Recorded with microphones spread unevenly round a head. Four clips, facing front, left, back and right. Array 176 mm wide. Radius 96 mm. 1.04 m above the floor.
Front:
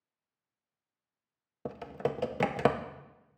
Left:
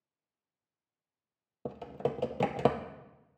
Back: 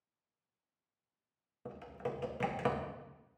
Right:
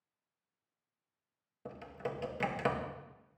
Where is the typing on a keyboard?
50° left, 0.7 m.